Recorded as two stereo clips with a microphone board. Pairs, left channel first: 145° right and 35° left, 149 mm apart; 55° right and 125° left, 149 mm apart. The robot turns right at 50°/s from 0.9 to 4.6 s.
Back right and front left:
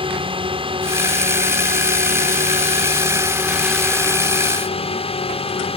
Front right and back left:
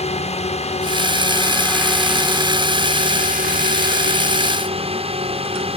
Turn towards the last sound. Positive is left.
turn(degrees=170)